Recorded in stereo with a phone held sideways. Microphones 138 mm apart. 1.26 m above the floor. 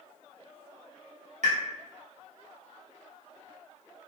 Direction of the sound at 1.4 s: 65° right (ahead or behind).